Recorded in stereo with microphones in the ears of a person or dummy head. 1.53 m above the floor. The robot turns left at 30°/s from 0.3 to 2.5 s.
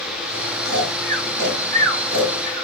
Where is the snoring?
65° right (ahead or behind), 3.5 m; by 2.6 s 45° right (ahead or behind), 3.5 m.